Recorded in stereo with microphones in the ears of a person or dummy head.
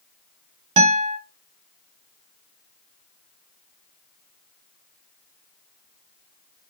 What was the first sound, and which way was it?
A guitar, 30° right (ahead or behind).